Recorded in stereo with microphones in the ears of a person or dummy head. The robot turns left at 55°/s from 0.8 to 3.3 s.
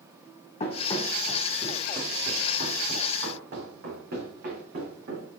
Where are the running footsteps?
40° left (ahead or behind), 2.5 m; by 5.3 s 45° right (ahead or behind), 4.5 m.